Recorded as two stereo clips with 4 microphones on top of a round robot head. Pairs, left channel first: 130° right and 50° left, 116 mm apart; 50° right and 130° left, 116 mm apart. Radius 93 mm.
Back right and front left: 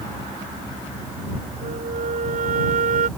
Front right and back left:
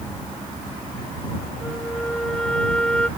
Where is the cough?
I don't hear a cough.